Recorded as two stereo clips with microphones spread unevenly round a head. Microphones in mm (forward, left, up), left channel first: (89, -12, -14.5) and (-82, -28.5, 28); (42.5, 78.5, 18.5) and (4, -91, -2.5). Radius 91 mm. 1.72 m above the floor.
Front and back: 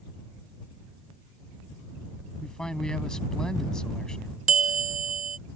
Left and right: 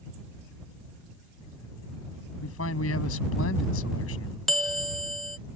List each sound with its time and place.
2.4 s a man speaking: 95° left
4.5 s a bell: 160° left